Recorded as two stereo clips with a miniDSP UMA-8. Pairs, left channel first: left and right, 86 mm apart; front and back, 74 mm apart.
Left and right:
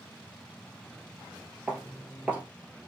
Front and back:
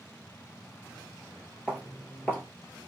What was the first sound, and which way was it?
Footsteps, 35° right.